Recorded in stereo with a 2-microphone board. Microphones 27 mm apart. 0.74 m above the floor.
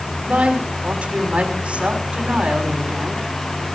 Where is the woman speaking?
50° right (ahead or behind), 6 m.